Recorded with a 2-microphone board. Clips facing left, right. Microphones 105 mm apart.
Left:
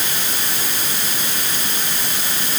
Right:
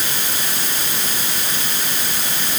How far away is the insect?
No insect in this recording.